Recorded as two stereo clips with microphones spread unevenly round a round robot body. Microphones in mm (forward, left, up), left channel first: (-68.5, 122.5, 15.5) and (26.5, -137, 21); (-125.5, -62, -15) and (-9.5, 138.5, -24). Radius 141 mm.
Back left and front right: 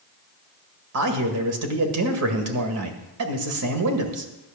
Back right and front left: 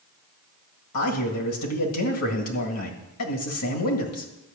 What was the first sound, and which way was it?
A man speaking, 95° right.